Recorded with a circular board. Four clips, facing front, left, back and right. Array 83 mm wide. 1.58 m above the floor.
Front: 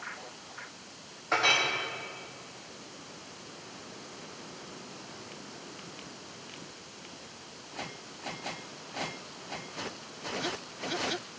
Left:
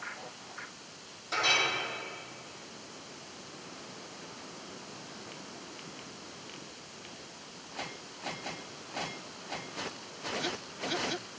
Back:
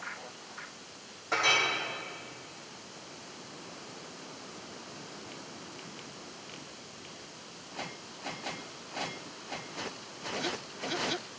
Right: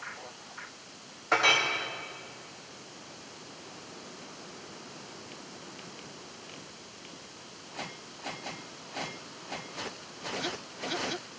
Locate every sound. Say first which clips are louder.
1.3 s a clink: right 5 dB, front 1 dB; 75° right, 2 m